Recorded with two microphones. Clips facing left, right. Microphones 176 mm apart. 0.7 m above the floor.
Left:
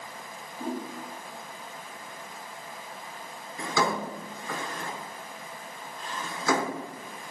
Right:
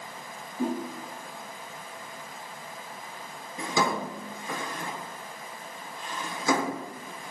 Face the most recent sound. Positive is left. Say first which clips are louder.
# even
turn(degrees=-20)  # may be behind; listen again after turning